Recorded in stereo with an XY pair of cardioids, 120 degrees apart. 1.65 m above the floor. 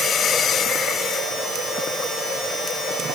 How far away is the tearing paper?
I don't hear tearing paper.